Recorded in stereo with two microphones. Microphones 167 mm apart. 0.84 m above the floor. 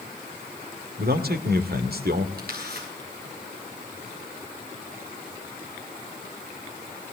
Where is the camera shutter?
65° right (ahead or behind), 7.5 m.